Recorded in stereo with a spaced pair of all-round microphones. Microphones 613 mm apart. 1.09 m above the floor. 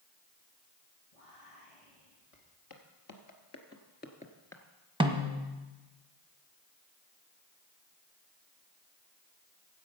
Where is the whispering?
65° left (ahead or behind), 1.6 m.